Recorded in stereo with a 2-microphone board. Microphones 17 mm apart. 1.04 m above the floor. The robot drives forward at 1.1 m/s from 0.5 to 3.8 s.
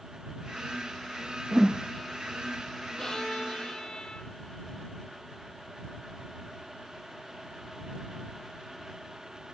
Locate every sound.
1.5 s a whoosh: 40° right (ahead or behind), 0.5 m; by 1.8 s 35° right (ahead or behind), 0.5 m
3.0 s a violin: 45° left (ahead or behind), 1.5 m; by 4.4 s 60° left (ahead or behind), 1.2 m